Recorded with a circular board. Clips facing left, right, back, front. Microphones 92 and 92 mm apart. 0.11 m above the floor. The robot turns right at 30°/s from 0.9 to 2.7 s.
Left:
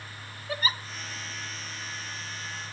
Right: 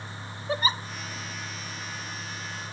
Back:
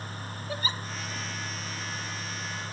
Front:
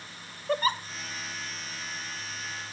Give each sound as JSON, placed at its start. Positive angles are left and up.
{"t": 0.5, "sound": "a giggle", "azimuth_deg": -30, "distance_m": 0.5}